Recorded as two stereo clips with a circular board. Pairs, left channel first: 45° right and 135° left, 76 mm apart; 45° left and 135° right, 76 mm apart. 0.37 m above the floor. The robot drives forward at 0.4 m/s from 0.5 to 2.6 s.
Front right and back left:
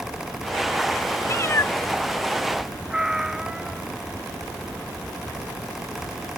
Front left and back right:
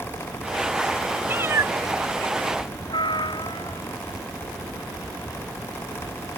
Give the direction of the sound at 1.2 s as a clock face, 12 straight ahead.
3 o'clock.